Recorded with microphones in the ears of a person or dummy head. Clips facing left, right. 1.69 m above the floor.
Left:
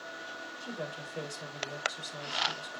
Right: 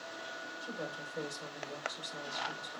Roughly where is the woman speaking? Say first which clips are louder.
Left 2 dB; left.